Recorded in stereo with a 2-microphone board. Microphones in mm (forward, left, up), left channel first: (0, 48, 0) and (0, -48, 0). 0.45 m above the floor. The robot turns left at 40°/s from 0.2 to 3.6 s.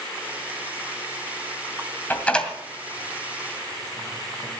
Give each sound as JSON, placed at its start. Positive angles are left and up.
{"t": 2.1, "sound": "a door slam", "side_deg": 20, "distance_m": 2.5}